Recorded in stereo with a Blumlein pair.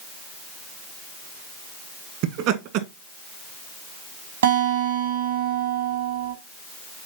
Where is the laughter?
45° right, 1.6 m.